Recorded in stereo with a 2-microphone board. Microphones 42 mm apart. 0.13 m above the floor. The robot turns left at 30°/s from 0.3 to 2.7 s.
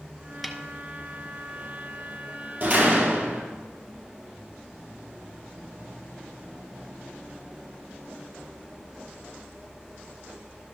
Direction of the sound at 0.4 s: Centre (ahead or behind).